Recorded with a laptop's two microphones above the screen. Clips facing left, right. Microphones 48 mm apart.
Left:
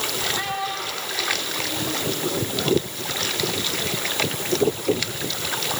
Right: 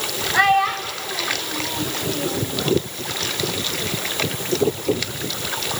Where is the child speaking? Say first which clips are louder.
Right 10 dB; 80° right, 6 m; by 2.5 s 90° right, 5 m.